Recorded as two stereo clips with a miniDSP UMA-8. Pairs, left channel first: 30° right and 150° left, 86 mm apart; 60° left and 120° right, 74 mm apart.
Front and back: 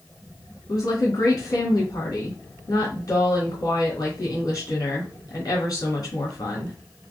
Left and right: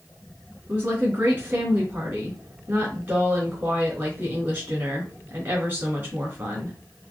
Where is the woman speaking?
60° right, 3 m.